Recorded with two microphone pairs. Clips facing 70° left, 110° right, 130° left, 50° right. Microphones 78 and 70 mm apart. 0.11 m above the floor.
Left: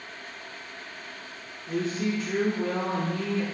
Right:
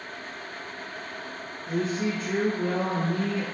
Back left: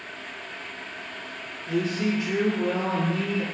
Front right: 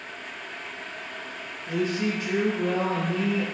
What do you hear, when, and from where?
1.7 s a woman speaking: 90° right, 1.9 m